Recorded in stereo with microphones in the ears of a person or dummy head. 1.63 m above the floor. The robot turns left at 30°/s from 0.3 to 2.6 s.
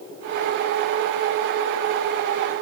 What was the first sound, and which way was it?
Only background noise.